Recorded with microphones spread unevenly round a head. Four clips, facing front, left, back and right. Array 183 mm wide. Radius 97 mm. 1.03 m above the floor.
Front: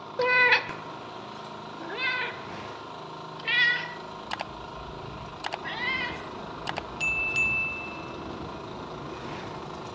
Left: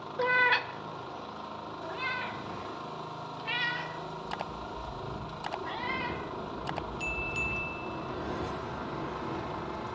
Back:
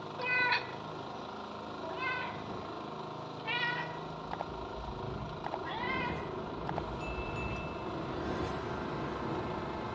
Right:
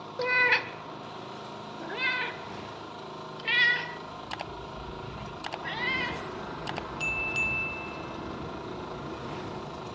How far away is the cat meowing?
About 0.7 m.